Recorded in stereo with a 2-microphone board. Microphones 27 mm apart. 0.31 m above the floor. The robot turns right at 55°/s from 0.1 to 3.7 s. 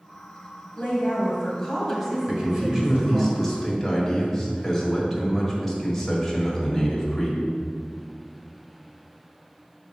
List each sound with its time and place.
0.8 s a woman speaking: 105° left, 1.9 m; by 3.3 s 115° right, 1.9 m
2.3 s a man speaking: 25° right (ahead or behind), 1.6 m; by 7.4 s 5° left (ahead or behind), 1.6 m